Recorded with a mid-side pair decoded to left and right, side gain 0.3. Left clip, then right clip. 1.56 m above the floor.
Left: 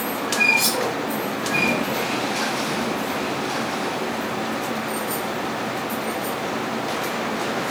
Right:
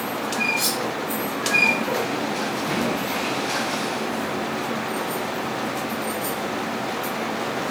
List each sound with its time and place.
0.6 s cutlery clinking: 20° left, 3.5 m